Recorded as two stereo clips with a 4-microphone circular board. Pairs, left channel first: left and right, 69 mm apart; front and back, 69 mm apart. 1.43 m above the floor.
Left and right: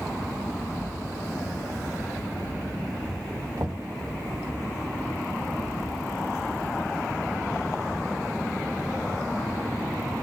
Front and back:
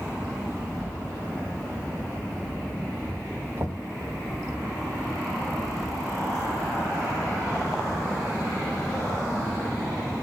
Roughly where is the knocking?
Behind right.